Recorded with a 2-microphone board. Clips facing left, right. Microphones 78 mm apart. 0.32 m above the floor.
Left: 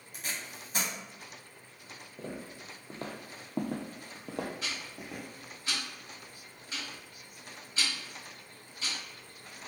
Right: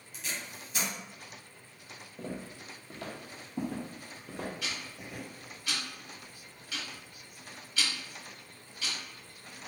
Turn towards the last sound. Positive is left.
turn(degrees=30)  # may be behind; listen again after turning